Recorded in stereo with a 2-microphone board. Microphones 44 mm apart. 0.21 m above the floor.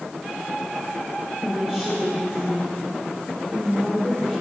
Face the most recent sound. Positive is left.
turn(degrees=-25)  # may be behind; listen again after turning